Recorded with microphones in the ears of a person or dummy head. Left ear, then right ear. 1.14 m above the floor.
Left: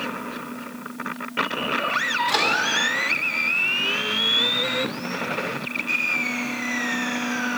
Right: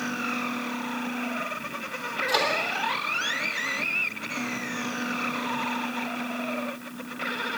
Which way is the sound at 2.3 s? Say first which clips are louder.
Left 1 dB; 10° left (ahead or behind).